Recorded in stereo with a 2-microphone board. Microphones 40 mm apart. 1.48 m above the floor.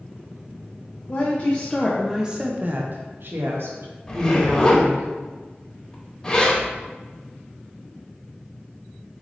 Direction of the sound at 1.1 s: 40° left (ahead or behind).